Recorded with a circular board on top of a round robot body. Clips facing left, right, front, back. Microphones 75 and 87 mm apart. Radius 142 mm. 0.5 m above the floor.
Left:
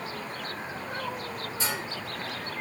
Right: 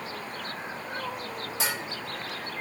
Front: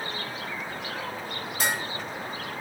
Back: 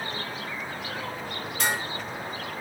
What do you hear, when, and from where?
1.6 s dishes clattering: 85° right, 1.6 m